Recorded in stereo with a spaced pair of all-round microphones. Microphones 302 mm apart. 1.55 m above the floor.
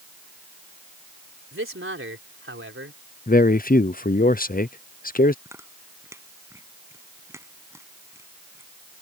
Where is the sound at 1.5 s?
40° right (ahead or behind).